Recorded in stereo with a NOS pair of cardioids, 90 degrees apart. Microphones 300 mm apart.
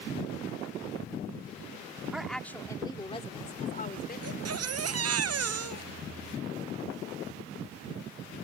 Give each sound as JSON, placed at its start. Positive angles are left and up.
{"t": 2.1, "sound": "a woman speaking", "azimuth_deg": -5}
{"t": 4.2, "sound": "a baby crying", "azimuth_deg": -55}